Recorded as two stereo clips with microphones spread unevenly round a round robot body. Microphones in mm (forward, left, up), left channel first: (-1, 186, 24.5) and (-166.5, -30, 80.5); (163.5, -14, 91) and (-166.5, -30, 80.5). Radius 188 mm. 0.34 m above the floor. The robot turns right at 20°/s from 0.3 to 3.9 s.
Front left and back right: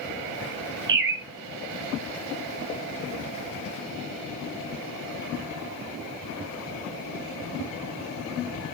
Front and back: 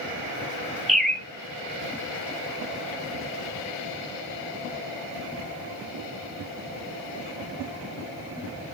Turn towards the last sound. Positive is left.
turn(degrees=-30)